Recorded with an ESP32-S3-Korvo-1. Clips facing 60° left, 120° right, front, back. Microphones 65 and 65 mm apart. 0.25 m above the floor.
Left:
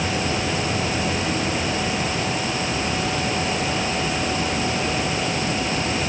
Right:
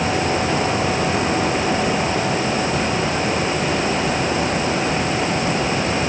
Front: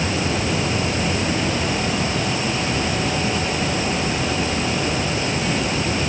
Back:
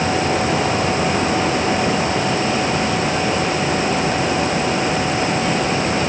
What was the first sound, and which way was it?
Only background noise.